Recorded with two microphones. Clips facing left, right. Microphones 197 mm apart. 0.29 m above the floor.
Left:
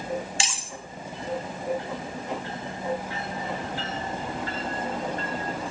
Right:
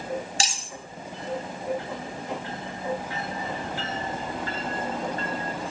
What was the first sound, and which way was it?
Cutlery clinking, 40° right (ahead or behind).